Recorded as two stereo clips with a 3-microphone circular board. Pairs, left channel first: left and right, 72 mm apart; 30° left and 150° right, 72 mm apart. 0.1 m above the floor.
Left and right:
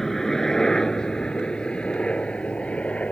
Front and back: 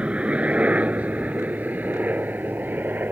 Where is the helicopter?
165° left; by 3.1 s 155° left.